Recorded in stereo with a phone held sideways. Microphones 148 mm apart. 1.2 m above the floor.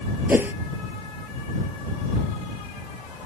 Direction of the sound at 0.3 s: 10° right (ahead or behind).